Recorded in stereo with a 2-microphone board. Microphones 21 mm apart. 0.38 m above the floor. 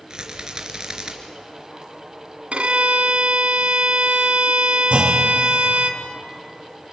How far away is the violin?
About 2 m.